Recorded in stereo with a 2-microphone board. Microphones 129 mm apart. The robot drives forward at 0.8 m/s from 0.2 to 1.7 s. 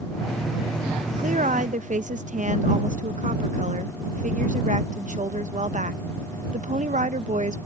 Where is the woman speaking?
75° right (ahead or behind).